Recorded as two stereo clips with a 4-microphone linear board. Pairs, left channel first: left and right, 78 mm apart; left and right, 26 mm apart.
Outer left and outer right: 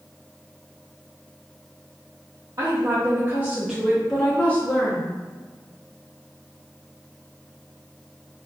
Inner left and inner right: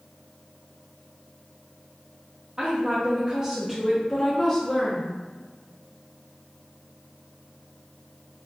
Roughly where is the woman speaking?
Right.